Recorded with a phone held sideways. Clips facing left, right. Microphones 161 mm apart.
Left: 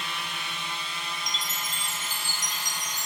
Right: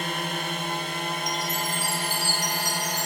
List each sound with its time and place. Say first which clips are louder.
0.0 s a drone: right 7 dB; 55° right (ahead or behind); by 3.1 s 60° right (ahead or behind)
1.3 s a chime: right 8 dB; 20° left (ahead or behind)